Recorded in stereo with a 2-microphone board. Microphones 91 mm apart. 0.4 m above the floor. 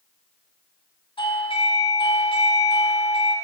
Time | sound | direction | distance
1.2 | a doorbell | 75° left (ahead or behind) | 5 m